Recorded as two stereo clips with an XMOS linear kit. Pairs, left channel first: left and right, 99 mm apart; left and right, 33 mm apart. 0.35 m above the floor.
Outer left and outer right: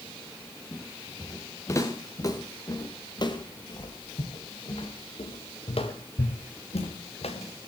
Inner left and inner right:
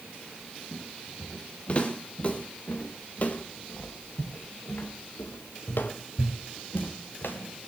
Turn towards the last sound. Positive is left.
turn(degrees=85)